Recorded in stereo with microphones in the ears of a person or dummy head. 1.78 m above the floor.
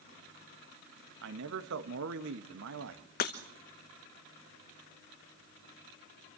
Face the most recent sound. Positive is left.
turn(degrees=35)  # may be behind; listen again after turning